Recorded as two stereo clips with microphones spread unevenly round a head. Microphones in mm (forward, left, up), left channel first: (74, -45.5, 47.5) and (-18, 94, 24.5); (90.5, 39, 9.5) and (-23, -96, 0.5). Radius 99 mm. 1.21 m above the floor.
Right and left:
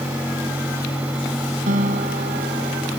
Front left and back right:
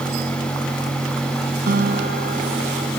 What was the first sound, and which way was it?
A guitar, straight behind.